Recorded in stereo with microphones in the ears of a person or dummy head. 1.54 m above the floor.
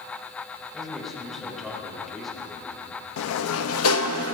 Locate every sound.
0.7 s a man speaking: centre (ahead or behind), 4.5 m
3.2 s a sliding door: 75° left (ahead or behind), 0.8 m